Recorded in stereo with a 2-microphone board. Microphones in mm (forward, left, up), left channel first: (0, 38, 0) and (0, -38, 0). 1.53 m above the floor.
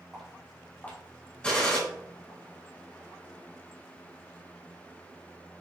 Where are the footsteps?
Centre (ahead or behind), 1.6 m; by 2.4 s 50° left (ahead or behind), 2.5 m.